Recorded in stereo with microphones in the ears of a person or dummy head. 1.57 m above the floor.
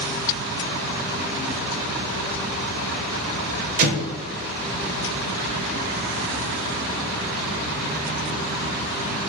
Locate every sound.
3.8 s an explosion: 50° right (ahead or behind), 0.7 m